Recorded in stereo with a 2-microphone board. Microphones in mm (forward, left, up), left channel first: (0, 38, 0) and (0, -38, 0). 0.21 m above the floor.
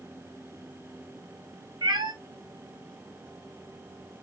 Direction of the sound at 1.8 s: 80° right.